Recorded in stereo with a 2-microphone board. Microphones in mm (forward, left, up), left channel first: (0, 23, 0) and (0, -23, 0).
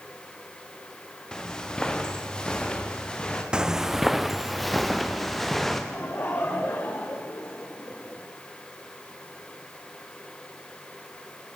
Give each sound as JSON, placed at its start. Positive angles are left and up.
{"t": 1.3, "sound": "footsteps", "side_deg": 15, "distance_m": 3.0}
{"t": 3.5, "sound": "footsteps", "side_deg": -20, "distance_m": 0.7}
{"t": 5.9, "sound": "laughter", "side_deg": 60, "distance_m": 3.0}